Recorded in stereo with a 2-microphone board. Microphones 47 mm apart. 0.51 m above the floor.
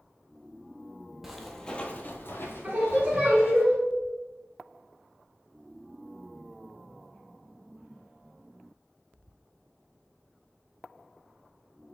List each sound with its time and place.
1.2 s footsteps: 5° right (ahead or behind), 0.6 m; by 3.6 s 60° left (ahead or behind), 1.3 m
2.6 s singing: 30° right (ahead or behind), 1.4 m